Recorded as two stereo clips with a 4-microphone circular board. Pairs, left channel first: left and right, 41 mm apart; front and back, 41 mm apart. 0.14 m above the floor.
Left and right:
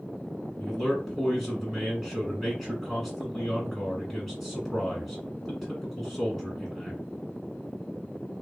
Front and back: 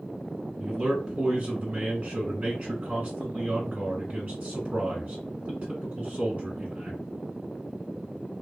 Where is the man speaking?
Straight behind, 1.5 m.